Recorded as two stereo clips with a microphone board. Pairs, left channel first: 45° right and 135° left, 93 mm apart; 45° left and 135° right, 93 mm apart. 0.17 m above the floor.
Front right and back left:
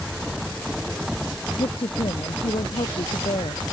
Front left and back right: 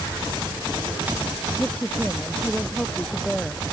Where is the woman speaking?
30° right; by 3.6 s 40° right.